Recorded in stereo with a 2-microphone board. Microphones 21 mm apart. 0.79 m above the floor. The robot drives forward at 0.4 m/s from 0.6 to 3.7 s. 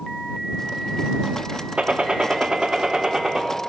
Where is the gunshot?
60° right (ahead or behind), 0.7 m; by 3.5 s 30° right (ahead or behind), 1.2 m.